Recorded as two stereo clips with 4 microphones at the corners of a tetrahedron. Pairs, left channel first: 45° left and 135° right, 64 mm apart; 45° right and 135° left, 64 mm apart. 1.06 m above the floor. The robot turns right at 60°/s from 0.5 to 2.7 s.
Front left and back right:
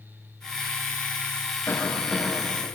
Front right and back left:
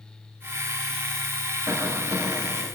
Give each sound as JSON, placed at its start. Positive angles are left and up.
{"t": 1.7, "sound": "a cough", "azimuth_deg": 95, "distance_m": 6.0}